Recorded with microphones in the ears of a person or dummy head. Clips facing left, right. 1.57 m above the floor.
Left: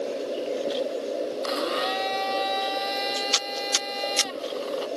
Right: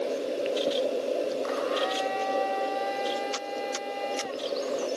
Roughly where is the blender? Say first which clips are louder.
Left 1 dB; left.